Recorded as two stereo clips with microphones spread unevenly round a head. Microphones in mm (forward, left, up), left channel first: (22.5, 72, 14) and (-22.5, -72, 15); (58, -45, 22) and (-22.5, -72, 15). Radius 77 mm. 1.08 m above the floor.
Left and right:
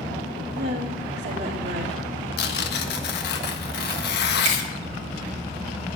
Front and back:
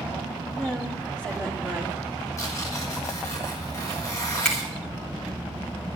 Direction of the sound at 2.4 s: 85° left.